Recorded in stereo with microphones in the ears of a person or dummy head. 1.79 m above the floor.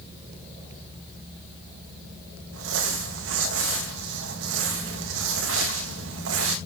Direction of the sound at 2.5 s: 80° right.